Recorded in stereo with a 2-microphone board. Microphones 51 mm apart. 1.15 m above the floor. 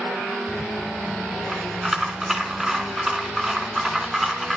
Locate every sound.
0.5 s a rattle: 10° right (ahead or behind), 4 m